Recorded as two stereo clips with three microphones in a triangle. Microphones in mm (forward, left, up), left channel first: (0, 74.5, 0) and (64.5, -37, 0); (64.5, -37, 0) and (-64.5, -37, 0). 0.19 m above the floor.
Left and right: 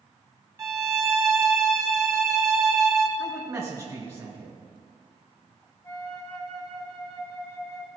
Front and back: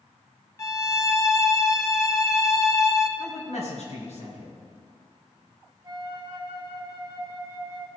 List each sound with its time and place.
0.6 s a violin: 30° right, 0.8 m
3.2 s a man speaking: 10° left, 3 m
5.8 s a flute: 165° left, 1.9 m